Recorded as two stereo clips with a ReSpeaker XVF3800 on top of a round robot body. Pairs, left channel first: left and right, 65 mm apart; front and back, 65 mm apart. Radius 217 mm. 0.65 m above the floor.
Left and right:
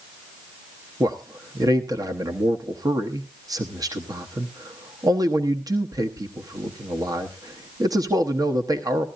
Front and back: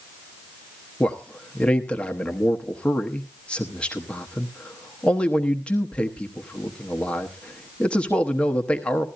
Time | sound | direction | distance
1.0 | a man speaking | 75° right | 1.1 m